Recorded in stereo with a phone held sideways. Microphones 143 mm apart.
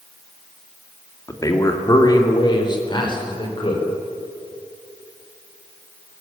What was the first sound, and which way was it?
A man speaking, 25° left (ahead or behind).